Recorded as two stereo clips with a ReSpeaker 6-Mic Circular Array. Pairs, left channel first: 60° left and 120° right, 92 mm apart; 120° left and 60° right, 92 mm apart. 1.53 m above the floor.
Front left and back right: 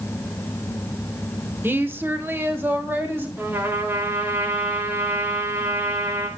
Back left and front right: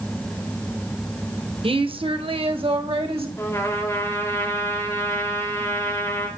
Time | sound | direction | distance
1.6 | a woman speaking | 55° right | 1.0 m
3.4 | a trumpet | 175° left | 2.5 m